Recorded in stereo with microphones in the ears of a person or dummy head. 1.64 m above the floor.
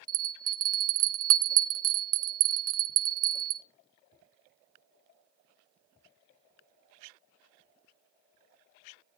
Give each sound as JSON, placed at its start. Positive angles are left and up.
{"t": 0.1, "sound": "a bell", "side_deg": -50, "distance_m": 0.6}